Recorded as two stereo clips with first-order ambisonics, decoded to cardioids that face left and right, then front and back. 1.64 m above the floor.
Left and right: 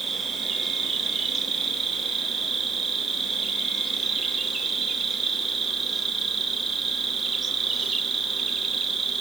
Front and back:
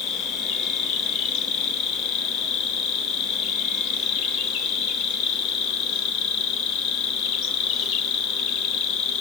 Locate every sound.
0.0 s an insect: 15° right, 1.2 m